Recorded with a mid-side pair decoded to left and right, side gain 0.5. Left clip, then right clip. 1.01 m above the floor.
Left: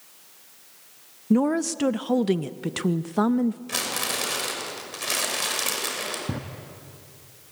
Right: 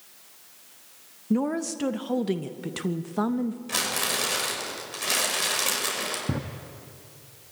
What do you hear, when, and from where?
1.3 s a woman speaking: 25° left, 0.6 m
3.7 s crumpling: straight ahead, 6 m
6.3 s a drawer: 15° right, 0.9 m